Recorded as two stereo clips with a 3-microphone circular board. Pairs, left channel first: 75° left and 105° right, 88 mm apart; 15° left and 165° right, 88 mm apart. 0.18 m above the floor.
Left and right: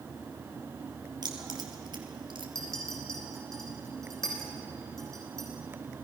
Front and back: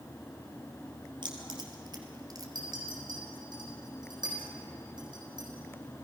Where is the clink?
160° left, 5 m.